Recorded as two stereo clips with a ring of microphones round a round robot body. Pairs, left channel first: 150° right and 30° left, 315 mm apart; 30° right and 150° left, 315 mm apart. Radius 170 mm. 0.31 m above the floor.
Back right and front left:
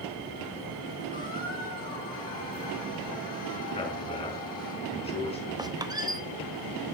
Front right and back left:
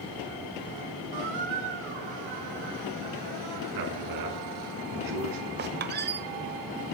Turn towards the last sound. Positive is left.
turn(degrees=105)